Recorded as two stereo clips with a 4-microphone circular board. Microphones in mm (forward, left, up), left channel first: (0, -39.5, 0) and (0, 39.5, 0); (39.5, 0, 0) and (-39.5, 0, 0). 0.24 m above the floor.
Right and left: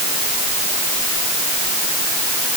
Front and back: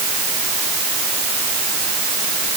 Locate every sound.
Only background noise.